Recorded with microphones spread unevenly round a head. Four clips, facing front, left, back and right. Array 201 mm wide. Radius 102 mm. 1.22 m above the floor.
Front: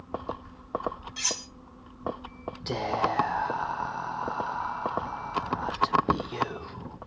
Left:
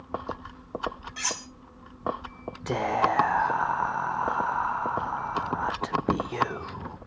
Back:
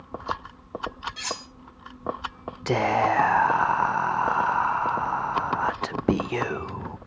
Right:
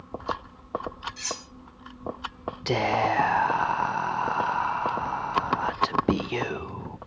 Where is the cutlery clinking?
115° left, 0.9 m.